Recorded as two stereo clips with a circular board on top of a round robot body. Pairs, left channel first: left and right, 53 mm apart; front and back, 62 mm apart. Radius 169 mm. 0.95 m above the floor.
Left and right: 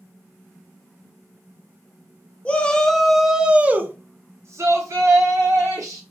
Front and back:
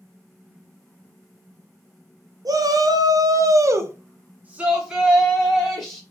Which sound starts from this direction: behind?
A shout, at 2.5 s.